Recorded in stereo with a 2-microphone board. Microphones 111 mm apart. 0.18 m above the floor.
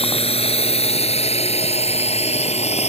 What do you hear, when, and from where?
0.0 s a drone: 60° left (ahead or behind); by 2.9 s 70° left (ahead or behind)